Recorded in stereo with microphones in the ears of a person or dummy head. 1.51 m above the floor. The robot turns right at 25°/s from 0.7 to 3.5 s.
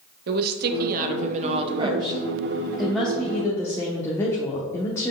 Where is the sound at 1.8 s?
25° right, 0.8 m; by 5.1 s 20° left, 0.8 m.